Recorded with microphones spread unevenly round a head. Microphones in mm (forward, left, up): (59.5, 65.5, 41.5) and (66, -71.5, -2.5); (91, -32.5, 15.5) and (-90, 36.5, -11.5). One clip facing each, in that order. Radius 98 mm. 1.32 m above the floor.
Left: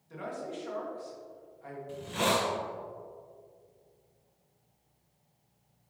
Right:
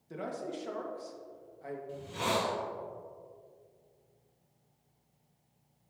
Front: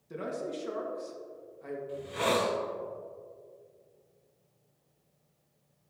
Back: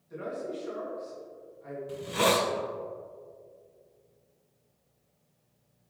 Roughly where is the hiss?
Behind left.